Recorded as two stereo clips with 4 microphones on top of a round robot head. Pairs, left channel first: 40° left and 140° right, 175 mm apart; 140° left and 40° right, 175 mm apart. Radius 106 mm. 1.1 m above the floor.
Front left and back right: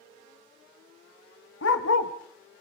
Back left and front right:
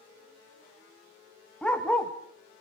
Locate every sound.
1.6 s a dog barking: 55° left, 1.7 m